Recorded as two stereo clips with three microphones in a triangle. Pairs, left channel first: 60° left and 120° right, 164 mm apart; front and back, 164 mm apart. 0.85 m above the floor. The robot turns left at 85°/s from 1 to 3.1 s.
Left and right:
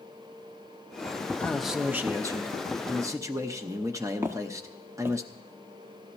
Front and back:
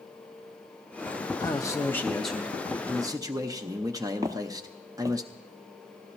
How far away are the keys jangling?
No keys jangling in this recording.